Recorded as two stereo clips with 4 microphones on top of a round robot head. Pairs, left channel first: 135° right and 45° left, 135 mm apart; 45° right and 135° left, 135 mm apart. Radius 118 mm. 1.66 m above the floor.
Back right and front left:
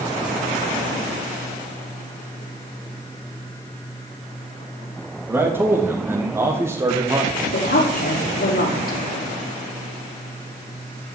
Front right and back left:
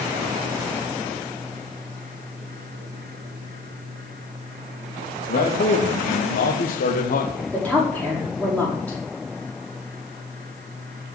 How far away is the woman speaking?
About 5.5 m.